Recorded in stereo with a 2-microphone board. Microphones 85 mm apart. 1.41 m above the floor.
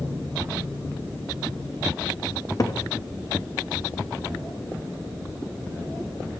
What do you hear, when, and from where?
2.6 s a cupboard door: 45° left (ahead or behind), 0.8 m